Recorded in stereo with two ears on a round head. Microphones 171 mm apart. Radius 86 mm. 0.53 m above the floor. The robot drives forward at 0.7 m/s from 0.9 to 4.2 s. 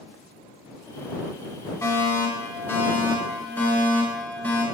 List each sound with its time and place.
1.8 s a fire alarm: 15° left (ahead or behind), 2 m; by 4.6 s 10° left (ahead or behind), 3.5 m